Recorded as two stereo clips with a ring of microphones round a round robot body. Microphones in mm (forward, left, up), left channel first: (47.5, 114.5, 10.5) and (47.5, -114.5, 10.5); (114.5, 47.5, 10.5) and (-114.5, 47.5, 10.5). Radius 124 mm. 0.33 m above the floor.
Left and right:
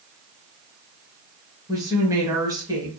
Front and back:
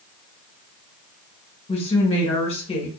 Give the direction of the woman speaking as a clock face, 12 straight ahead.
1 o'clock.